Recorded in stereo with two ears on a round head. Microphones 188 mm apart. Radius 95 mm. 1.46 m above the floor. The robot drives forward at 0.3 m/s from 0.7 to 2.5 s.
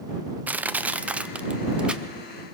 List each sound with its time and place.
0.5 s crushing: 10° right (ahead or behind), 0.6 m; by 2.5 s 5° right (ahead or behind), 1.2 m